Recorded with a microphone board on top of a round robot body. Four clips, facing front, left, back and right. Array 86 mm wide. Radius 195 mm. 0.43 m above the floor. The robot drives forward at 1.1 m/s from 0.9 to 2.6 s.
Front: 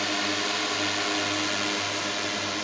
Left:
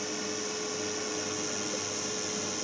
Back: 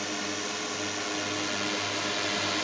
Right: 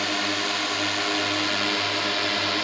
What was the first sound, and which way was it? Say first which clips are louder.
A drone: right 8 dB, front 5 dB; 65° right.